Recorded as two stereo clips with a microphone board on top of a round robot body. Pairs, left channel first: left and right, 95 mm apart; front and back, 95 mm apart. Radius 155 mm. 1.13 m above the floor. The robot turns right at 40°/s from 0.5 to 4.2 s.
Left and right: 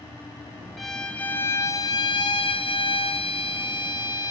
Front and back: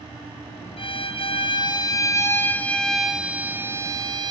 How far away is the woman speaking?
No woman speaking in this recording.